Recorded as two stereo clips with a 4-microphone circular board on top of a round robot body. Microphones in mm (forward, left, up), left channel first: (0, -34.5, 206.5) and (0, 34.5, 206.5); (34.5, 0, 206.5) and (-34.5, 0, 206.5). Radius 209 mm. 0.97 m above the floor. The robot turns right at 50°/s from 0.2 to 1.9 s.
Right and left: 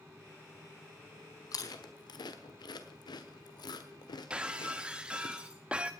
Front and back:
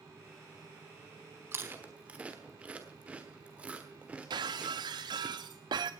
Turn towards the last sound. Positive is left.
turn(degrees=165)